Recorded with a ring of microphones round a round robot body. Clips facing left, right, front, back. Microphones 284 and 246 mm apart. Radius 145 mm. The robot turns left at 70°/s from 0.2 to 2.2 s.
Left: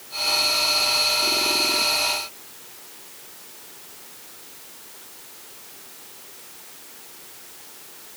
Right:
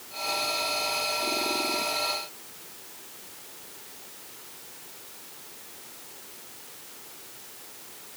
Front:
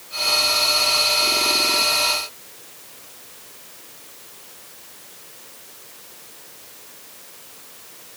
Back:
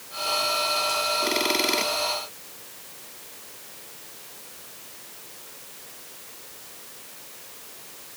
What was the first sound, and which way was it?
Only background noise.